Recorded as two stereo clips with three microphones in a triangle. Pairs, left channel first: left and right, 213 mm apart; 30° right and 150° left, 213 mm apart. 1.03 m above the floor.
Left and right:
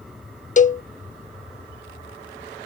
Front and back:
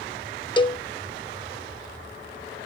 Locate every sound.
0.6 s a cowbell: 35° left